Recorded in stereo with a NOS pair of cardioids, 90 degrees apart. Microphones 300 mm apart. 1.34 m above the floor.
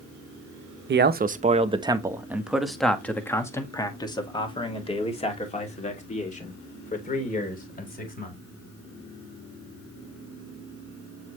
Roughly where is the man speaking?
Ahead right.